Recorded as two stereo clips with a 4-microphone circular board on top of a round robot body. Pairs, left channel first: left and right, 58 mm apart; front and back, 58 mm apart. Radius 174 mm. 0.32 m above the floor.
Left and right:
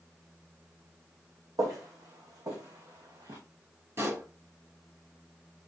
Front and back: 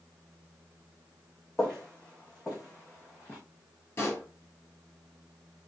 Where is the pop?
45° right, 3 m.